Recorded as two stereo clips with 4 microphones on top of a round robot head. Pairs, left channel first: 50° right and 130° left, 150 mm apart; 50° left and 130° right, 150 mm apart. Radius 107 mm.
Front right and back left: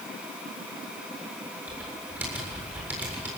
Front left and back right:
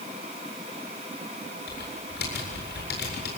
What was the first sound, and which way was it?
Typing on a keyboard, 50° left.